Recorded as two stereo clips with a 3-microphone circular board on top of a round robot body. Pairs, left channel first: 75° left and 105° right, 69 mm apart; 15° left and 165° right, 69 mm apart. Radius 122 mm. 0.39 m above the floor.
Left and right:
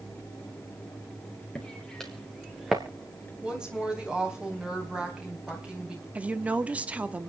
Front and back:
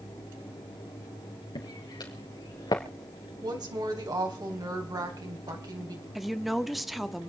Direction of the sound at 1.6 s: 5° right.